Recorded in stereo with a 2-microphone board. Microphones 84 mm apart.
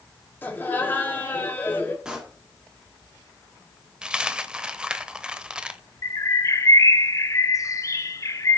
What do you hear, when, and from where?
0.4 s laughter: 25° left (ahead or behind), 3.5 m
2.0 s a pop: 10° right (ahead or behind), 2.5 m
4.0 s a dropped coin: 10° right (ahead or behind), 0.8 m
6.0 s a bird: 40° left (ahead or behind), 0.7 m